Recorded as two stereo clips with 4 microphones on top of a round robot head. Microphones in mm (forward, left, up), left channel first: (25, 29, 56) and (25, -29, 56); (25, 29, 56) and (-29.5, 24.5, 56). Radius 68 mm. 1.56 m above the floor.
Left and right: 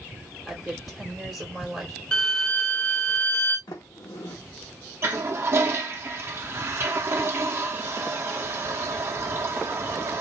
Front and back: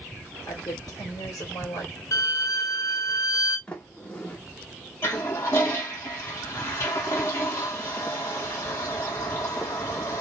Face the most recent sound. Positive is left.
turn(degrees=-40)